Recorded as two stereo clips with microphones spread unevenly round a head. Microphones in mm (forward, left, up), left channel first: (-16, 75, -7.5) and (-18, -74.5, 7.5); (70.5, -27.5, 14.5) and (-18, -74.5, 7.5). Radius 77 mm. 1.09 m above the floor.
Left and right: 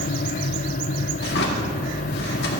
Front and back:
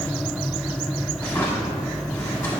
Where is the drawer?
105° left, 1.2 m.